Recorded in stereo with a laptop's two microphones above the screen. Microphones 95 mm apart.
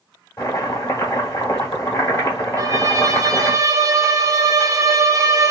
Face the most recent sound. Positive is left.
turn(degrees=-35)  # may be behind; listen again after turning